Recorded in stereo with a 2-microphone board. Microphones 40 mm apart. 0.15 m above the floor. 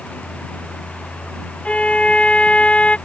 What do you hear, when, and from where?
1.6 s a violin: 30° left (ahead or behind)